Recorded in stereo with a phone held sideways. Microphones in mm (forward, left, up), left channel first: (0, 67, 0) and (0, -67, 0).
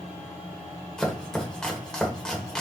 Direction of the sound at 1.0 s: 5° left (ahead or behind).